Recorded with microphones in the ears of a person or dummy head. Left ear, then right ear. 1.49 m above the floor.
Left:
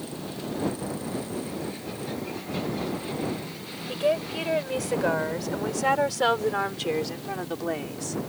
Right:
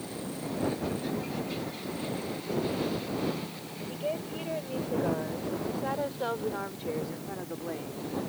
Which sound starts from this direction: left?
A woman speaking, at 3.9 s.